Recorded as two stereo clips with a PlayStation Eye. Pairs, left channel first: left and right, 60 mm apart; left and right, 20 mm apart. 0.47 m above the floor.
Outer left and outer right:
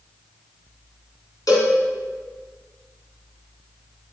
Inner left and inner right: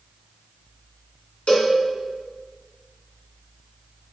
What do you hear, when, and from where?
1.5 s a cowbell: 85° left, 2 m